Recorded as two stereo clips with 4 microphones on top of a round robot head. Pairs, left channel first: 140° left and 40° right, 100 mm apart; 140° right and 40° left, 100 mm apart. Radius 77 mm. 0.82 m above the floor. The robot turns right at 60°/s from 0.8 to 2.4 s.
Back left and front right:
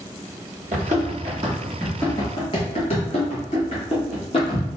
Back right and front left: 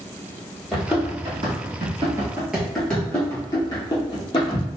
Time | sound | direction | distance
0.7 | running footsteps | 50° right | 1.2 m